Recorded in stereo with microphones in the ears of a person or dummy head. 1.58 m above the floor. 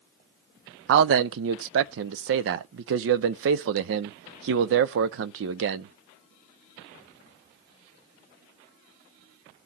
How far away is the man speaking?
About 0.6 m.